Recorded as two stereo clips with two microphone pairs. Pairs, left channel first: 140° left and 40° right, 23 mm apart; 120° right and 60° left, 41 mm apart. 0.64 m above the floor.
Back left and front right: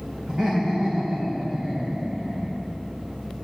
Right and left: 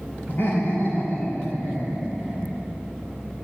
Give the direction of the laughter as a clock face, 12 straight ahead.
3 o'clock.